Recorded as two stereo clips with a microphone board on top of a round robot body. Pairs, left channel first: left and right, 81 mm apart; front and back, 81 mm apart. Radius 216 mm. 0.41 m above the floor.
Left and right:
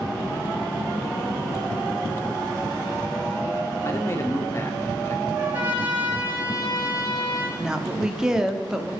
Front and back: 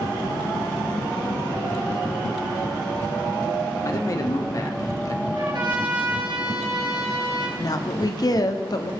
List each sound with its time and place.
3.9 s a man speaking: 35° left, 1.7 m
5.3 s a trumpet: 160° right, 5 m
7.6 s a woman speaking: 10° right, 1.4 m